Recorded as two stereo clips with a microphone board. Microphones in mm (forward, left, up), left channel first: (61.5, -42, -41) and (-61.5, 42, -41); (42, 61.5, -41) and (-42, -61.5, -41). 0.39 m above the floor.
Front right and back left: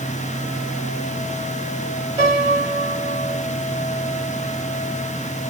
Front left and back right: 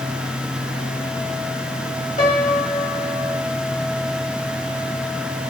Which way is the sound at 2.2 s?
85° left.